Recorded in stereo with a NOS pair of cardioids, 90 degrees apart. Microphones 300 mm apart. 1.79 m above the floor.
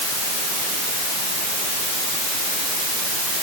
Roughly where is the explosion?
I don't hear an explosion.